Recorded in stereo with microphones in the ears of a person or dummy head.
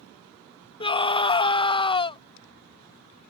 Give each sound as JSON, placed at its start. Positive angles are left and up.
{"t": 0.8, "sound": "a scream", "side_deg": 20}